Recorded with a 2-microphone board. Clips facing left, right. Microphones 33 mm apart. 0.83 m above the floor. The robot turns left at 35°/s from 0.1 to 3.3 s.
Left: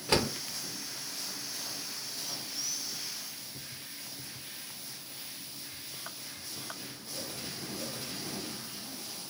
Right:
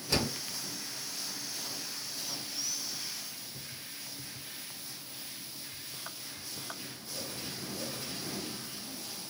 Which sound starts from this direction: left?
A door slam, at 0.1 s.